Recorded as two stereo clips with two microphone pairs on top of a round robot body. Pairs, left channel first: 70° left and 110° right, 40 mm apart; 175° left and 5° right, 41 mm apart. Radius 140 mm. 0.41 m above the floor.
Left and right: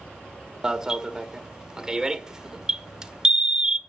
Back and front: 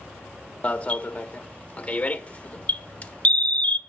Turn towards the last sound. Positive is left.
turn(degrees=-150)